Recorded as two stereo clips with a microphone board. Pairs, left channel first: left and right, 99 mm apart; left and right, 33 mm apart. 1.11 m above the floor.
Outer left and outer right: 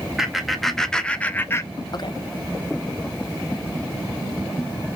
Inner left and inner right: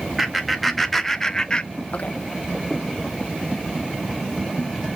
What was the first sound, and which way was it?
Laughter, 5° right (ahead or behind).